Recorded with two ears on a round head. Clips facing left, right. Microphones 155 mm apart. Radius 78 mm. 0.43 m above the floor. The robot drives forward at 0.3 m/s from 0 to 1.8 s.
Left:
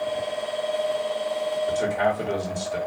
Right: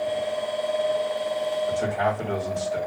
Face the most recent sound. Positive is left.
turn(degrees=40)  # may be behind; listen again after turning